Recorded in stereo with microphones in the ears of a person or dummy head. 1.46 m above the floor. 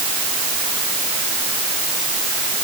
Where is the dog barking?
No dog barking in this recording.